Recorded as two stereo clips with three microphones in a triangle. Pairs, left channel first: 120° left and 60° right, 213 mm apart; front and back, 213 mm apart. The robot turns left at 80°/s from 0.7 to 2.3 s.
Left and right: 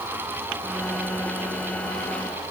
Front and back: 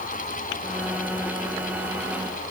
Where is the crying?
I don't hear crying.